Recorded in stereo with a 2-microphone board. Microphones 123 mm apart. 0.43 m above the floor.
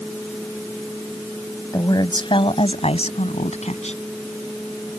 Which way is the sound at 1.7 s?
30° left (ahead or behind).